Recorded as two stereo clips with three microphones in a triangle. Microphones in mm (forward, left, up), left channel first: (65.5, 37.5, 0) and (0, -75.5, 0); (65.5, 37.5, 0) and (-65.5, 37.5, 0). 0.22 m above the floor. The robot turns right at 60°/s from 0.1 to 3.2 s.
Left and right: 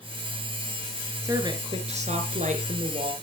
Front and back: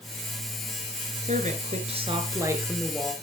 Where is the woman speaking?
170° left, 4 m; by 3.1 s 75° right, 4 m.